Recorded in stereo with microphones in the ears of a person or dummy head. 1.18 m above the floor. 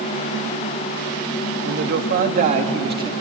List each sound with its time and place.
1.6 s a man speaking: 60° right (ahead or behind), 2 m; by 3.1 s 20° right (ahead or behind), 2.5 m